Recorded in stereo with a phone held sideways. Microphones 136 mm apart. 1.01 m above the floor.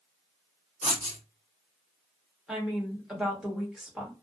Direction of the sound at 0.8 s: 65° left (ahead or behind).